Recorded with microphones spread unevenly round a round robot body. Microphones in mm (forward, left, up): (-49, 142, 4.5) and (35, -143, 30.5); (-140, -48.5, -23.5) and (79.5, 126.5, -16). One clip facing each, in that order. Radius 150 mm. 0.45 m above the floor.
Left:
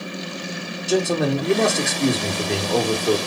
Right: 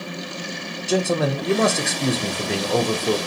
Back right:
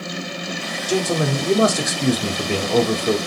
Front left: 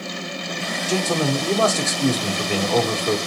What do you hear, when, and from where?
0.9 s a man speaking: 175° right, 0.7 m